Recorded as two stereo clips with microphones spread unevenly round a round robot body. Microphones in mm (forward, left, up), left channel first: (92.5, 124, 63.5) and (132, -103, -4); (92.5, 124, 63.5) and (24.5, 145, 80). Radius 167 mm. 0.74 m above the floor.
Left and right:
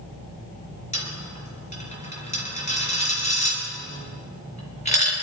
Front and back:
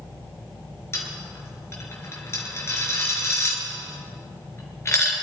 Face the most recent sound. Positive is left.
turn(degrees=40)